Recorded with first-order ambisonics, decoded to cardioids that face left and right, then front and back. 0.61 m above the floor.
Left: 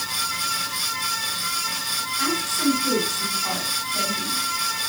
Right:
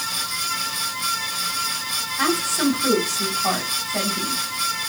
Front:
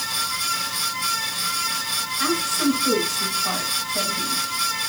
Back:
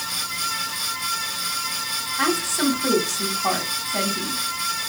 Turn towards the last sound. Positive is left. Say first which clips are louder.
# right 4 dB, back 1 dB
turn(degrees=-140)